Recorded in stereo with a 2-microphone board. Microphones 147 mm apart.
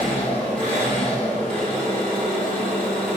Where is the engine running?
10° left (ahead or behind), 1.4 m.